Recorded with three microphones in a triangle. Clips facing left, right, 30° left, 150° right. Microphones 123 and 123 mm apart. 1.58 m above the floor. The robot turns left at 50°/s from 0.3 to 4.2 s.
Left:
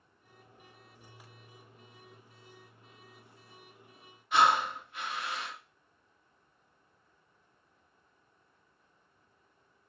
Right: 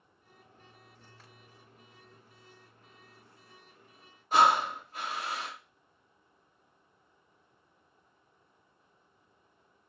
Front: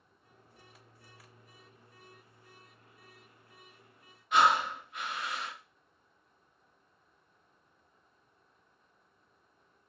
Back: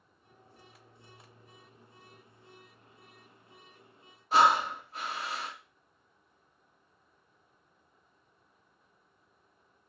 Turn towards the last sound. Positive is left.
turn(degrees=-115)